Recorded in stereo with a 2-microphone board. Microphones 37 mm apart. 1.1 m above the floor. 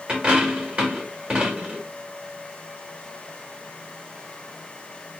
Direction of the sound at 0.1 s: 25° right (ahead or behind).